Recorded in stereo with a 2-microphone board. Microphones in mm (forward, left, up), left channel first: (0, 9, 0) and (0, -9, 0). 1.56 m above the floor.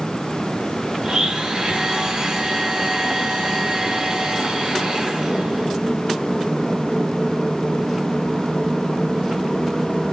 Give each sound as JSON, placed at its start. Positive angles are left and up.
{"t": 1.0, "sound": "a blender", "side_deg": -50, "distance_m": 1.8}